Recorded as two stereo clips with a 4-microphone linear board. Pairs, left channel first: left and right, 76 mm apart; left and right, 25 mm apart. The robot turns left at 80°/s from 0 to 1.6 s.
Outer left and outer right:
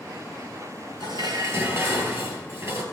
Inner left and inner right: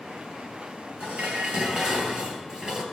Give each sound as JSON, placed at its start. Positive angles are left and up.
{"t": 1.0, "sound": "dishes clattering", "azimuth_deg": -90, "distance_m": 3.0}